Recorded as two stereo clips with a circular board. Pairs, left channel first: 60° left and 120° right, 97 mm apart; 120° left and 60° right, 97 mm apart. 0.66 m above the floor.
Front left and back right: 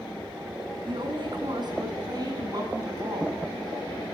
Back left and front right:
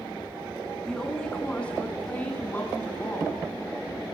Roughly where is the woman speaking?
Behind right.